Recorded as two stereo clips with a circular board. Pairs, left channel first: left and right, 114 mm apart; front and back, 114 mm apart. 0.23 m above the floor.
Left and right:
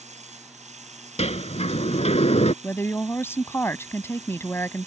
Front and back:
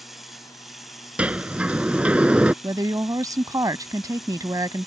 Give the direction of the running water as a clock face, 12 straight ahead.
3 o'clock.